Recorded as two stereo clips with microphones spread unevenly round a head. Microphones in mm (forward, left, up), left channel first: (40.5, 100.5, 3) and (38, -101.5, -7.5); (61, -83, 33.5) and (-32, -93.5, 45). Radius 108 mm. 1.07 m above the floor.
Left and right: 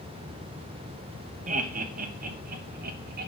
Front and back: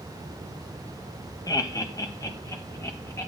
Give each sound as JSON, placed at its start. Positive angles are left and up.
{"t": 1.5, "sound": "laughter", "azimuth_deg": -40, "distance_m": 2.0}